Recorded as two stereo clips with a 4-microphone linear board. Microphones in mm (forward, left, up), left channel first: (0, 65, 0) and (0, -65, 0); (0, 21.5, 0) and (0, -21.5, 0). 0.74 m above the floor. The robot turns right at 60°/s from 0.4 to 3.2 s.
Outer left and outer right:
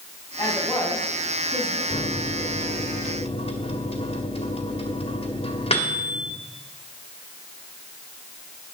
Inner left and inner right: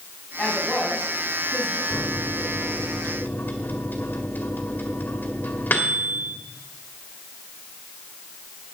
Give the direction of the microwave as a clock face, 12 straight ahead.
10 o'clock.